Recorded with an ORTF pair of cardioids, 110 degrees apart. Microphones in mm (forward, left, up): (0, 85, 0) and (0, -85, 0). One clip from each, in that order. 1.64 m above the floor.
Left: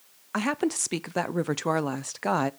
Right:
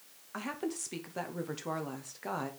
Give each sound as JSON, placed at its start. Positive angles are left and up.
{"t": 0.3, "sound": "a woman speaking", "azimuth_deg": 55, "distance_m": 0.6}